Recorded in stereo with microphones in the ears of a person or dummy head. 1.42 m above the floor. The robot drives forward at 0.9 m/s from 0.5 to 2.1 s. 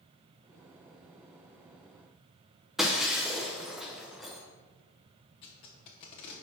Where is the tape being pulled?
35° left (ahead or behind), 1.1 m.